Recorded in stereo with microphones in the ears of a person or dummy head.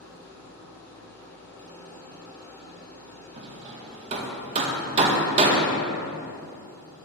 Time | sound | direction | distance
0.0 | an engine running | 10° left (ahead or behind) | 1.4 m
3.4 | hammering | 25° right (ahead or behind) | 0.6 m